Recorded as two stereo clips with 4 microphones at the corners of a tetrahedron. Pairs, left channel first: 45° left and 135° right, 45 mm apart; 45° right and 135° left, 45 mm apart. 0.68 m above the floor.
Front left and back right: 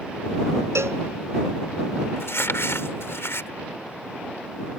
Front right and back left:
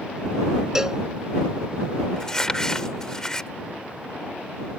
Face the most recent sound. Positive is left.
turn(degrees=30)